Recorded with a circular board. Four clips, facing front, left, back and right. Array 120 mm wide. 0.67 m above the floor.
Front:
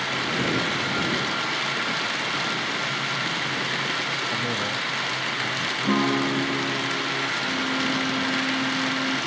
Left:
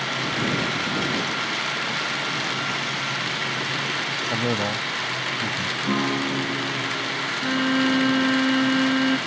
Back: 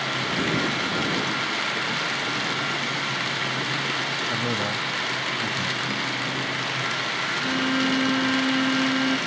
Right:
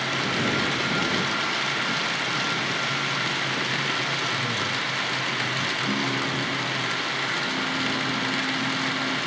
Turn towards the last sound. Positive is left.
turn(degrees=100)